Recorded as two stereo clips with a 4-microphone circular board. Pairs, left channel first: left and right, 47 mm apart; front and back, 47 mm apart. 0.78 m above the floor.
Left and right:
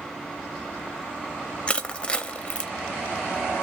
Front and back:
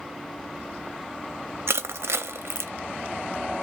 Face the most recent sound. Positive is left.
turn(degrees=155)